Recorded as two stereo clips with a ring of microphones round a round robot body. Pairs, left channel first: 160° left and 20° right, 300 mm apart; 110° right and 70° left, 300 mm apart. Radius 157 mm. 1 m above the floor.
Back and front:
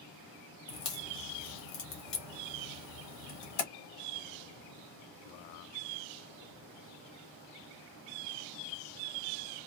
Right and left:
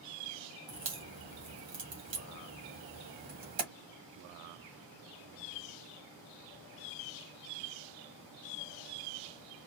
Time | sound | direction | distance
0.7 | a crack | 130° left | 1.3 m